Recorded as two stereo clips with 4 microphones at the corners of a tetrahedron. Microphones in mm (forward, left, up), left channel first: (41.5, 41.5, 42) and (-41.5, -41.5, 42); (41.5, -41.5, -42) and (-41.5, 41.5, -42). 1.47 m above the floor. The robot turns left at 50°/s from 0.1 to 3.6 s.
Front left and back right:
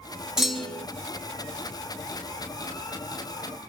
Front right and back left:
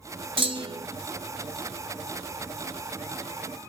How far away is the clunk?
About 1.1 m.